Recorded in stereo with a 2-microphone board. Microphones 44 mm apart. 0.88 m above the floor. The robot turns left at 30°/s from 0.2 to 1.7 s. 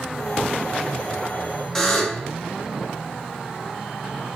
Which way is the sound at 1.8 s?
10° left (ahead or behind).